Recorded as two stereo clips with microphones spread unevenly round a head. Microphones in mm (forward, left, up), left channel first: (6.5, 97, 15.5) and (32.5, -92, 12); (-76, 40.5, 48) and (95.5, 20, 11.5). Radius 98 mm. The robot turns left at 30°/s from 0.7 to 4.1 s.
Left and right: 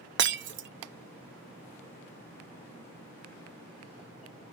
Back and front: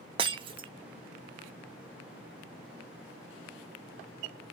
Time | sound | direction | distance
0.2 | breaking glass | 75° right | 0.6 m